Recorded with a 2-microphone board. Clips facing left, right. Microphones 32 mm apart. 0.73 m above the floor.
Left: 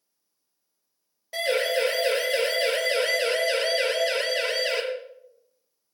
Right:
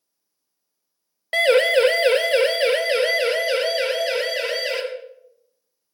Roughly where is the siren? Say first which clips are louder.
Right 8 dB; right.